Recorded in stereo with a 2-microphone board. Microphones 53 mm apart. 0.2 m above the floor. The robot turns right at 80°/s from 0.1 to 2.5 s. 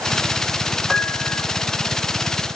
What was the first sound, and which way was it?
A piano, 15° left.